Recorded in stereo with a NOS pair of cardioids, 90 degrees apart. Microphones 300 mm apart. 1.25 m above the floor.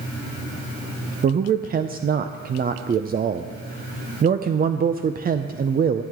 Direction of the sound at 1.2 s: 30° right.